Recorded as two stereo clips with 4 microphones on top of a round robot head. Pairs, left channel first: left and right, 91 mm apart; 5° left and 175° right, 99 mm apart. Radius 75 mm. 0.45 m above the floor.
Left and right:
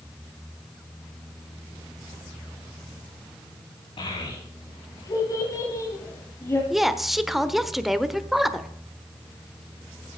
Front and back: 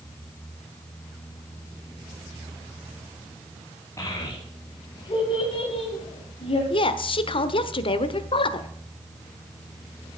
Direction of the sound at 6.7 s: 5° right.